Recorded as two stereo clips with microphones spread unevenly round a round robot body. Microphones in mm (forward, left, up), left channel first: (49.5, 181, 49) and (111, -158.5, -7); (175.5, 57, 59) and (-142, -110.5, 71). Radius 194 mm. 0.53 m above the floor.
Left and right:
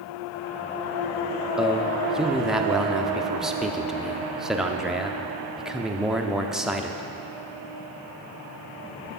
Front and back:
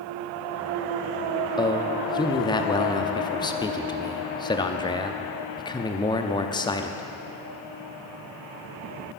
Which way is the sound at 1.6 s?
20° right.